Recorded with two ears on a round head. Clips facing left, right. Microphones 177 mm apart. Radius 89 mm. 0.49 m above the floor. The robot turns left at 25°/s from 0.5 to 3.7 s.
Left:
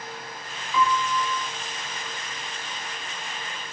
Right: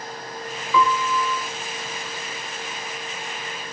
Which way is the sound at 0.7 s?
50° right (ahead or behind).